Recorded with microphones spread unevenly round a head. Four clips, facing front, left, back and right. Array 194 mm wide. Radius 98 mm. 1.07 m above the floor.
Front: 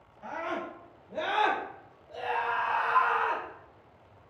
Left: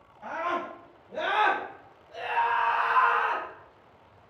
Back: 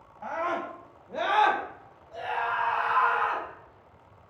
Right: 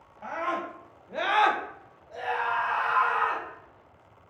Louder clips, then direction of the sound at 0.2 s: Even, back 4 dB; 170° right.